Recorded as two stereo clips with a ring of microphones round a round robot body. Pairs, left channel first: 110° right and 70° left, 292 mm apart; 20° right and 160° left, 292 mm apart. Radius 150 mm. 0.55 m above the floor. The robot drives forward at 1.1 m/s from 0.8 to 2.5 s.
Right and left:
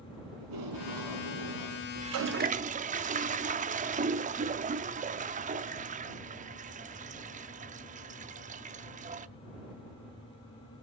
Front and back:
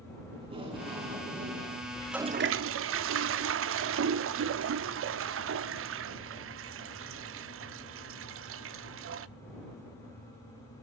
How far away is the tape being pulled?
About 5 m.